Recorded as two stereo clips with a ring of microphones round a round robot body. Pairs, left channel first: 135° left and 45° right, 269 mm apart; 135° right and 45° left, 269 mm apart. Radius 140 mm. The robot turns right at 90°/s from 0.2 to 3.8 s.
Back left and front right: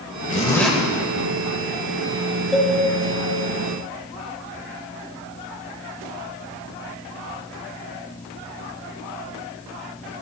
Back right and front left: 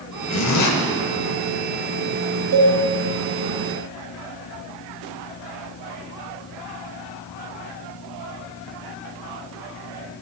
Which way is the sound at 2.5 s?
45° left.